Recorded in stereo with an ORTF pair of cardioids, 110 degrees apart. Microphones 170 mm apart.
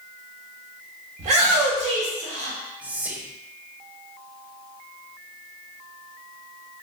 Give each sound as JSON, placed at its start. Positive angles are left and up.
{"t": 1.2, "sound": "a shout", "azimuth_deg": -45, "distance_m": 1.4}
{"t": 2.8, "sound": "whispering", "azimuth_deg": -10, "distance_m": 0.6}